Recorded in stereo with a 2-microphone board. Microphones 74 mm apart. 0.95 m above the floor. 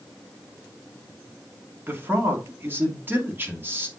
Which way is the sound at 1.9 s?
25° right (ahead or behind).